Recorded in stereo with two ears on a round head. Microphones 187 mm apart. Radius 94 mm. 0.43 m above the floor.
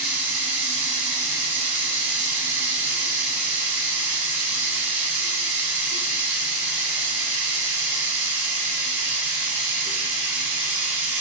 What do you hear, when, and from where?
0.0 s running water: 10° right (ahead or behind), 0.7 m